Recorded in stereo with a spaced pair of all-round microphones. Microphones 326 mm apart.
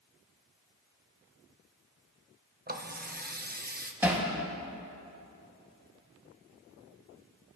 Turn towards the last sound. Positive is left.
turn(degrees=-5)  # may be behind; listen again after turning